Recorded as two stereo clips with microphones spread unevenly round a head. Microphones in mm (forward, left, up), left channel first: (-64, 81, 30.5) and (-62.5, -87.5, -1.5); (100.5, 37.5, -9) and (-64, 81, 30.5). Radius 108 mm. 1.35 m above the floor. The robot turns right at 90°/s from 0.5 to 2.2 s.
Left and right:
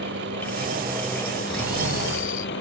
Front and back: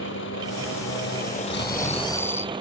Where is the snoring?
5° right; by 2.5 s 65° left.